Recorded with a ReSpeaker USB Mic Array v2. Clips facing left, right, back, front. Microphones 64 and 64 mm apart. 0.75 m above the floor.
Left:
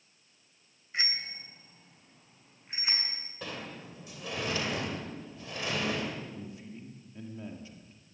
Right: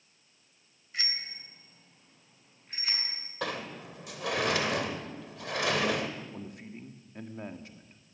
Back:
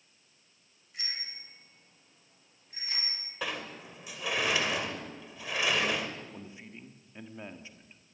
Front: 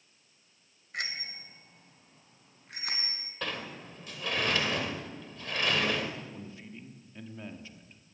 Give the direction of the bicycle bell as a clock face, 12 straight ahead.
11 o'clock.